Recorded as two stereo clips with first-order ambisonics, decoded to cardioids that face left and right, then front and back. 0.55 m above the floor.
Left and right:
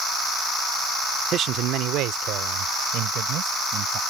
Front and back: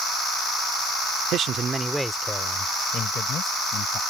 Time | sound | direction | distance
1.3 | a man speaking | 140° right | ?